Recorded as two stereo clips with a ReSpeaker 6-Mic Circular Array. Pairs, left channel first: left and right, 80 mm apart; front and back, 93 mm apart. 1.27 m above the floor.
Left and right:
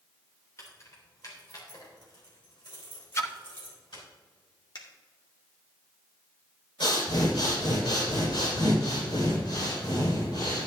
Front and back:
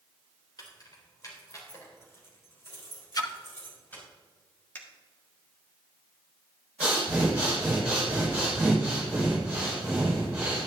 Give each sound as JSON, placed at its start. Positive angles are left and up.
{"t": 0.6, "sound": "keys jangling", "azimuth_deg": 40, "distance_m": 3.0}
{"t": 3.1, "sound": "a splash", "azimuth_deg": 40, "distance_m": 0.8}
{"t": 4.8, "sound": "a finger snap", "azimuth_deg": 65, "distance_m": 1.6}
{"t": 6.8, "sound": "breathing", "azimuth_deg": 105, "distance_m": 5.0}